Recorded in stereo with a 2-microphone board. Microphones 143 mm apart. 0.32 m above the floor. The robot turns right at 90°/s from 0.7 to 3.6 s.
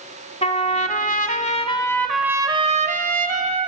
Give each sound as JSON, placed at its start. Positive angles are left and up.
{"t": 0.4, "sound": "a trumpet", "azimuth_deg": 50, "distance_m": 1.2}